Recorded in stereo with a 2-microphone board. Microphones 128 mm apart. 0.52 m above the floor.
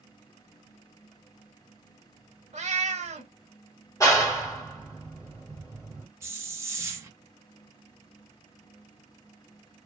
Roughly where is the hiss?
Centre.